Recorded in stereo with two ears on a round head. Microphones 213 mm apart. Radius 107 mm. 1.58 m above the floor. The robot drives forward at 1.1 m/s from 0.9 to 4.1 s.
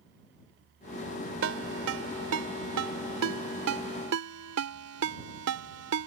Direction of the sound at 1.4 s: 55° right (ahead or behind).